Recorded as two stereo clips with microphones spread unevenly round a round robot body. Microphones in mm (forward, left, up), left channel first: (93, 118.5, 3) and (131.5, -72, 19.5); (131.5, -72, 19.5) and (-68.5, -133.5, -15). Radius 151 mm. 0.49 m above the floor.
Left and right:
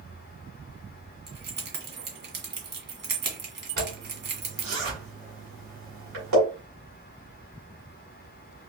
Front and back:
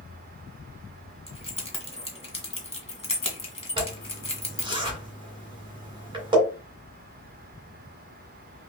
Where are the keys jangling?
50° right, 1.8 m.